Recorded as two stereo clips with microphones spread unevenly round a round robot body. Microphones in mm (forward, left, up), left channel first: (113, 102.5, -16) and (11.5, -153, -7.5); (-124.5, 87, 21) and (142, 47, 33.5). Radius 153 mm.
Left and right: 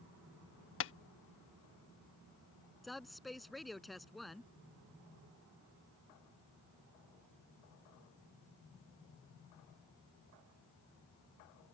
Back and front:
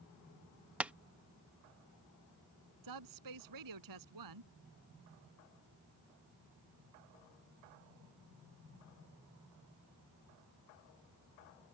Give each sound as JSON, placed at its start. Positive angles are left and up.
{"t": 0.8, "sound": "tapping", "azimuth_deg": 80}
{"t": 2.8, "sound": "a woman speaking", "azimuth_deg": -20}